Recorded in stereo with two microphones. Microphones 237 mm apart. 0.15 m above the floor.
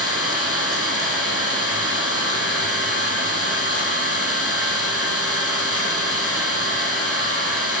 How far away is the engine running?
About 2 m.